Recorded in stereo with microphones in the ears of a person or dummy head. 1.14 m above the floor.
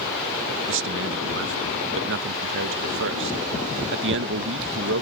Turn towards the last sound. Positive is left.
turn(degrees=-60)  # may be behind; listen again after turning